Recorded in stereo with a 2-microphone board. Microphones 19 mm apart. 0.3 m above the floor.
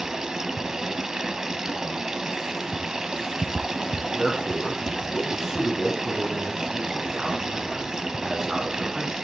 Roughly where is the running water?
Right.